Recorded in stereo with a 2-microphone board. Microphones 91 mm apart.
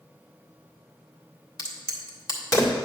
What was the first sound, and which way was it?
A crack, 45° left (ahead or behind).